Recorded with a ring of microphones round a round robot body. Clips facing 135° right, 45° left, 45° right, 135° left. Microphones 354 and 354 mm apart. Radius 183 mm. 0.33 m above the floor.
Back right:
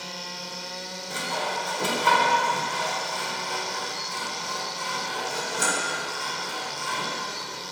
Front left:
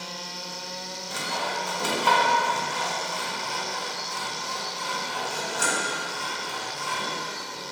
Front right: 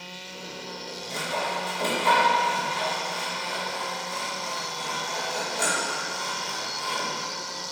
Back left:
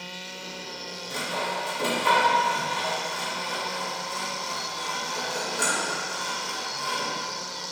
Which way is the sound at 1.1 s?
170° right.